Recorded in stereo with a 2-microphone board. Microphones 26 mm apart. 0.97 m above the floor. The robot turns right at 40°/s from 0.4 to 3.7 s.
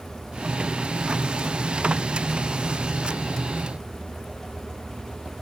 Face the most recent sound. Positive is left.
No sound to turn to.